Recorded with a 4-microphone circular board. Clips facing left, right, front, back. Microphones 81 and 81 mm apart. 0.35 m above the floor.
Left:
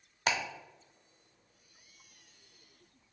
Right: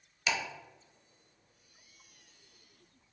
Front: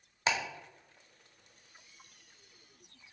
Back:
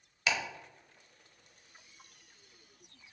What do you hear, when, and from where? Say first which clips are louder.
0.3 s ticking: left 2 dB, front 2 dB; 55° left, 0.7 m